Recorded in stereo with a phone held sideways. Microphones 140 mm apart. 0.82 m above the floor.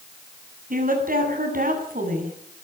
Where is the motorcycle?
I don't hear a motorcycle.